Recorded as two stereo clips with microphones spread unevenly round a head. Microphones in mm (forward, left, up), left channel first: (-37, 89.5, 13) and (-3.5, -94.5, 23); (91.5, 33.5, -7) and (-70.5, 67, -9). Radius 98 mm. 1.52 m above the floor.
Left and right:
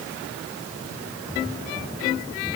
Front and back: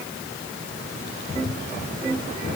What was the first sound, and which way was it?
Only background noise.